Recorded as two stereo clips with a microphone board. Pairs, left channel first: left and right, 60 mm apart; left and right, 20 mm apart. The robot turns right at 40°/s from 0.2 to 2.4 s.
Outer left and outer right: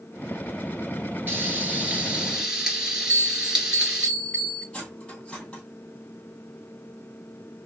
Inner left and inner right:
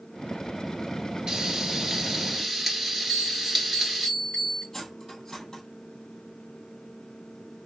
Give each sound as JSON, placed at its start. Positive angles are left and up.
{"t": 1.3, "sound": "frying", "azimuth_deg": -65, "distance_m": 1.3}
{"t": 3.1, "sound": "a bell", "side_deg": 20, "distance_m": 2.5}
{"t": 4.7, "sound": "cutlery clinking", "side_deg": 15, "distance_m": 2.5}